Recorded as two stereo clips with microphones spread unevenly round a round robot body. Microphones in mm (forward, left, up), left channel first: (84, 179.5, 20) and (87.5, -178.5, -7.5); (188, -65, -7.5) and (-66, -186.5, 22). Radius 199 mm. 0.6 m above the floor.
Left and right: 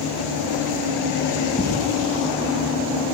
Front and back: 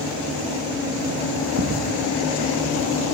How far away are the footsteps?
About 1.4 m.